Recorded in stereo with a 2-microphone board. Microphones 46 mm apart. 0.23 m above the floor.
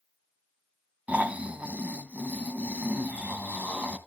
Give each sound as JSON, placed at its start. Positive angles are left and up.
{"t": 1.1, "sound": "snoring", "side_deg": -30, "distance_m": 1.1}